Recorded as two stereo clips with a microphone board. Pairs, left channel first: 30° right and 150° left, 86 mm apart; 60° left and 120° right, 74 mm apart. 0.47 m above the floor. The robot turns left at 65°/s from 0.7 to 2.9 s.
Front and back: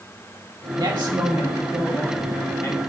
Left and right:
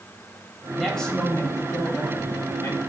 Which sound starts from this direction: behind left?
A man speaking, at 0.8 s.